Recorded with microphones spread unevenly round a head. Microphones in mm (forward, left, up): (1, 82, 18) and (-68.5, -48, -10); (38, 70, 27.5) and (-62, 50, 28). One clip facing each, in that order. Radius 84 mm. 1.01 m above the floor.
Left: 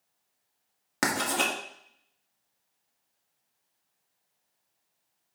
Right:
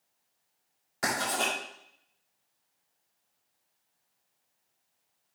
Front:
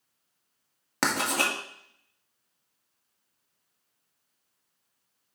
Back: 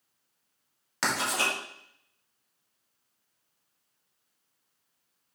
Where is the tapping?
I don't hear tapping.